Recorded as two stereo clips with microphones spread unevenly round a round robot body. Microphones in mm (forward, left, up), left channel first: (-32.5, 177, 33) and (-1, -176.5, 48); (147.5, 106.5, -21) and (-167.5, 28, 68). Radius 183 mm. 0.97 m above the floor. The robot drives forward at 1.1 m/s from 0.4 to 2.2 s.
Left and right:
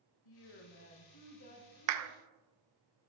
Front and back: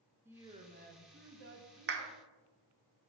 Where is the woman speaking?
105° left, 1.2 m; by 2.1 s 155° left, 2.5 m.